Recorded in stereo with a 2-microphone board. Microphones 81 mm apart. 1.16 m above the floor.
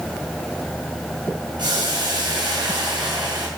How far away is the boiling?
About 4.5 m.